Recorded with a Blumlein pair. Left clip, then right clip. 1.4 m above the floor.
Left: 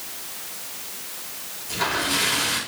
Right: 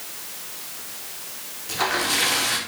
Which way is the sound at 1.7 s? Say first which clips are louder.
Right 1 dB; 40° right.